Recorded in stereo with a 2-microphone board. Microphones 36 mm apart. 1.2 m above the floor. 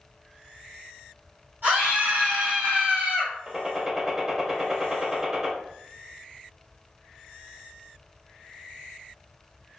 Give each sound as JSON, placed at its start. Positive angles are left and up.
{"t": 1.6, "sound": "a scream", "side_deg": -85, "distance_m": 1.1}
{"t": 3.5, "sound": "a gunshot", "side_deg": -15, "distance_m": 0.6}